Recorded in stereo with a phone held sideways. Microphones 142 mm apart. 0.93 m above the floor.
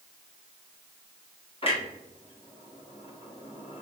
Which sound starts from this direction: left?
A clunk, at 1.6 s.